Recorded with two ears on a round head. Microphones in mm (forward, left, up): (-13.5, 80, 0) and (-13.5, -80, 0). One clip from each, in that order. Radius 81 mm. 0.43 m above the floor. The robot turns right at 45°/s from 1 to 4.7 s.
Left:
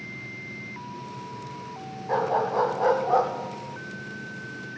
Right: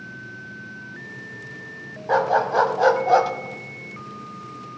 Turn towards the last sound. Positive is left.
turn(degrees=-15)